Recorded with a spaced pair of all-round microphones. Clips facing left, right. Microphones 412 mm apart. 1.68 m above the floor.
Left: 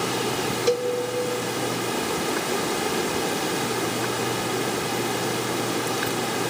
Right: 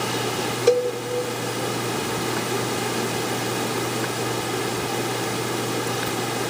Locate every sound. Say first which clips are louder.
0.7 s a cowbell: right 5 dB; 70° right (ahead or behind), 0.5 m